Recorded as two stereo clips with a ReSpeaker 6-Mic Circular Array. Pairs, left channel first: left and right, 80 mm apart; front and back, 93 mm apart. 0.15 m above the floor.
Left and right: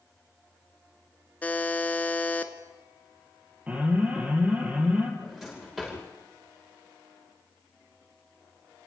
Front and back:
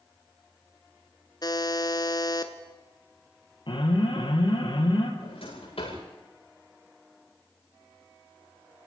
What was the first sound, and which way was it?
A buzzer, 25° left.